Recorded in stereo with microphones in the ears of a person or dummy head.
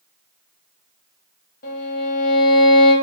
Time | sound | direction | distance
1.6 | a violin | 45° left (ahead or behind) | 0.9 m